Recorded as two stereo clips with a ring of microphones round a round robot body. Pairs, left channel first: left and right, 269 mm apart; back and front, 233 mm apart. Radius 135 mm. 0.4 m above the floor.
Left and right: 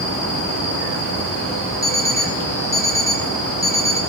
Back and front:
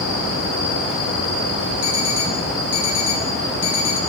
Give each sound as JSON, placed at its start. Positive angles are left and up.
{"t": 1.8, "sound": "an alarm clock", "azimuth_deg": 170, "distance_m": 1.8}